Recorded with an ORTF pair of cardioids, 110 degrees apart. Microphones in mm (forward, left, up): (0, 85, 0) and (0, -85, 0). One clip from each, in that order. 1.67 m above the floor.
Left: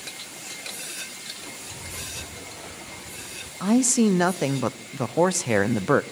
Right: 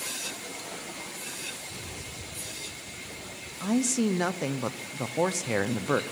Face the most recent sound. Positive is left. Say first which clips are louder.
# left 6 dB
turn(degrees=35)